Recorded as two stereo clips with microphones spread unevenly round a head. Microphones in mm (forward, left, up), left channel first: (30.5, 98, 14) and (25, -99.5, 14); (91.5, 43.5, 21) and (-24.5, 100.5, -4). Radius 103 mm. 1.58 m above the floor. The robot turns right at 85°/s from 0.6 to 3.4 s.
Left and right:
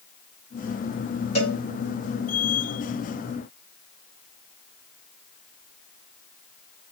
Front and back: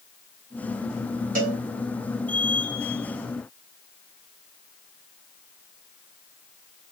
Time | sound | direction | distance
1.4 | a cowbell | 145° left | 2 m